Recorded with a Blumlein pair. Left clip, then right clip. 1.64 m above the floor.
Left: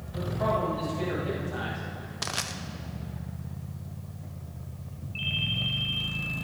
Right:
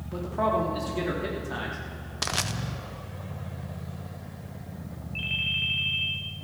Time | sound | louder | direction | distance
0.1 | a man speaking | right 2 dB | 45° right | 4.5 m
2.2 | crushing | right 3 dB | 10° right | 0.7 m
5.2 | a ringtone | right 2 dB | straight ahead | 2.0 m